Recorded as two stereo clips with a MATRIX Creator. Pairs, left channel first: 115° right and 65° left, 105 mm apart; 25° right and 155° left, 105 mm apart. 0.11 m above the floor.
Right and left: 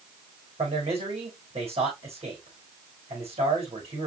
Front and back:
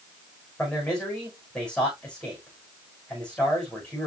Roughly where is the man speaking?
Ahead left.